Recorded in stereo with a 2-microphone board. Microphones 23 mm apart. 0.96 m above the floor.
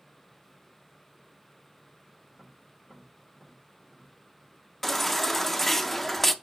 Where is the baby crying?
10° left (ahead or behind), 0.6 m.